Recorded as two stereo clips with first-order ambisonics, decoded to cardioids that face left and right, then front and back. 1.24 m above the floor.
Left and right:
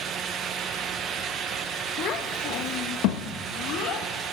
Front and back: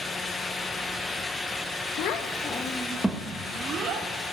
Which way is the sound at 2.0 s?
35° left.